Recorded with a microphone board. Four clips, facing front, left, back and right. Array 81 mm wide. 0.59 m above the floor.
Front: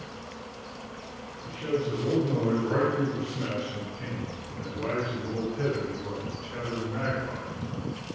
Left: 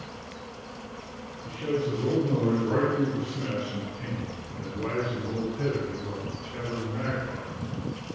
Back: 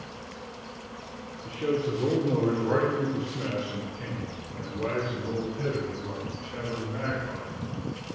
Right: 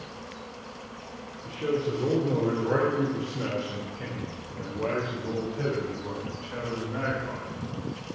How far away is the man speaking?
About 1.9 m.